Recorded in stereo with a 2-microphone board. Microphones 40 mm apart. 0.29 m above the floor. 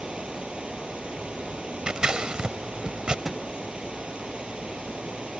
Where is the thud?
5° right (ahead or behind).